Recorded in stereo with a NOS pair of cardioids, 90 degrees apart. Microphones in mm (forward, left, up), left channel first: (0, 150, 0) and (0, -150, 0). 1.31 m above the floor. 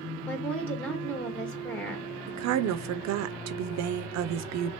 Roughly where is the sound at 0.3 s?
Ahead.